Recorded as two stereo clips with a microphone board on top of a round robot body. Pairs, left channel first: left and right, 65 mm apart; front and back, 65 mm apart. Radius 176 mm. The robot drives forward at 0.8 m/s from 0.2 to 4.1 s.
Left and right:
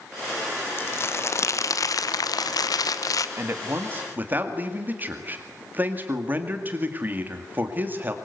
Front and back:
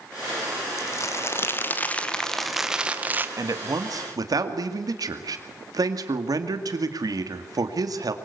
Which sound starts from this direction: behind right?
A man speaking, at 3.4 s.